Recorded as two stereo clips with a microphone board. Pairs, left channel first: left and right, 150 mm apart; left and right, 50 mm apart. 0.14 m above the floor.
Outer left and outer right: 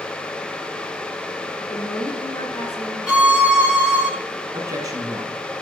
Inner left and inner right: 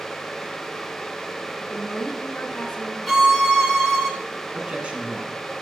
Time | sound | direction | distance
1.6 | a woman speaking | 20° left (ahead or behind) | 1.5 m
3.1 | a violin | 5° right (ahead or behind) | 1.5 m
4.5 | a man speaking | 25° right (ahead or behind) | 1.1 m